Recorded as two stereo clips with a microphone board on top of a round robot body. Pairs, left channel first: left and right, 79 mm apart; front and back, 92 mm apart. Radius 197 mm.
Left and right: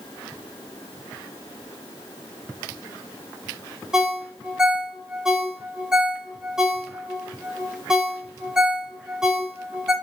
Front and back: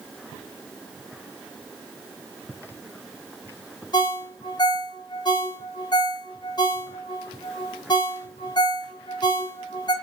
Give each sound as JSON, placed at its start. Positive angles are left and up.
{"t": 3.9, "sound": "a ringtone", "azimuth_deg": -10, "distance_m": 0.8}